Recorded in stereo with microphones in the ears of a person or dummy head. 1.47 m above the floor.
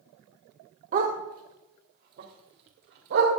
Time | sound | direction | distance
0.9 | a dog barking | 40° right (ahead or behind) | 2 m